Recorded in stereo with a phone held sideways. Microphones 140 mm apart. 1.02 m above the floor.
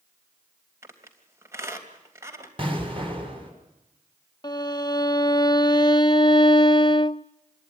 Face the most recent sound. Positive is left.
turn(degrees=30)  # may be behind; listen again after turning